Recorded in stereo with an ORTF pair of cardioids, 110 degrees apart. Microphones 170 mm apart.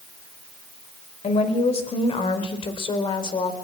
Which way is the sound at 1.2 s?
40° left.